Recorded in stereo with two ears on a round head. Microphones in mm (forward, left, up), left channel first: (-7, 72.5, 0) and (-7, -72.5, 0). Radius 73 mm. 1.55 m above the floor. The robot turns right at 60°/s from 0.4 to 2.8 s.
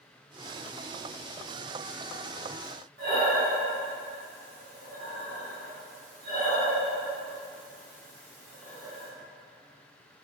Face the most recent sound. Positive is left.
turn(degrees=-55)  # may be behind; listen again after turning